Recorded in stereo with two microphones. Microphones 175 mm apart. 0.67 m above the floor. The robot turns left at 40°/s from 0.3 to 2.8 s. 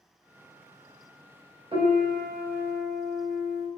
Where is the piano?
35° right, 0.9 m; by 3.7 s 75° right, 0.9 m.